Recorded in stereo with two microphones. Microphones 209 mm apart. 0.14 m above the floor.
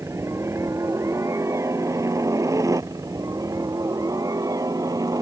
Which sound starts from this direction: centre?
A helicopter, at 0.0 s.